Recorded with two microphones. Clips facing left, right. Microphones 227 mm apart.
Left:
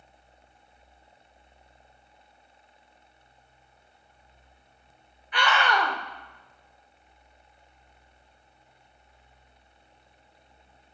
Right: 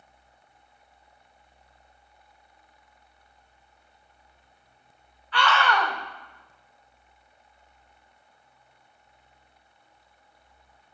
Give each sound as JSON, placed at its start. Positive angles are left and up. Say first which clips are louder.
{"t": 5.3, "sound": "a scream", "louder": "right 1 dB", "side_deg": 15, "distance_m": 0.9}